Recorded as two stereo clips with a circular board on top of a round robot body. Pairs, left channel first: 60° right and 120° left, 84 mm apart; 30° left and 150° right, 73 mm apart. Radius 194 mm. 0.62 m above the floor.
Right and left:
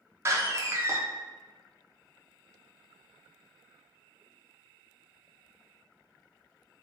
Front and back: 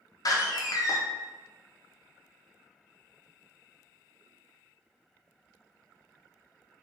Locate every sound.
0.2 s a door slam: 65° left, 1.3 m